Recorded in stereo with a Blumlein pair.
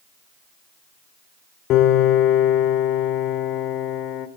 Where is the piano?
35° left, 2 m.